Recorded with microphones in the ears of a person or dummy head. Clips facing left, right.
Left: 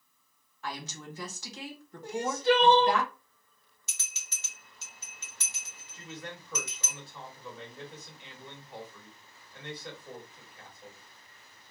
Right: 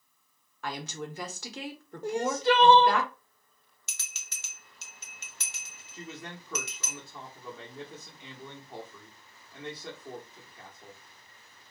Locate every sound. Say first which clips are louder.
0.6 s a woman speaking: right 4 dB; 55° right (ahead or behind), 0.9 m
2.0 s crying: right 1 dB; 60° right (ahead or behind), 0.6 m
3.9 s a bell: right 1 dB; 50° right (ahead or behind), 0.6 m
5.9 s a man speaking: right 1 dB; 35° right (ahead or behind), 1.4 m